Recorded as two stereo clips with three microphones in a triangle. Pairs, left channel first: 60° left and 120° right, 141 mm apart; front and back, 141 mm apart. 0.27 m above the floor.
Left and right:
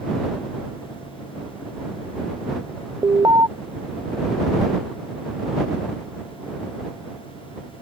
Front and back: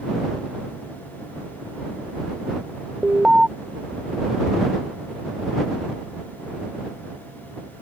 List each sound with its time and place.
3.0 s an alarm: 100° right